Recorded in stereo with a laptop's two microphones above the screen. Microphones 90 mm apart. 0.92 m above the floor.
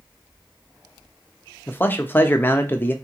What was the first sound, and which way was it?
A man speaking, 20° left (ahead or behind).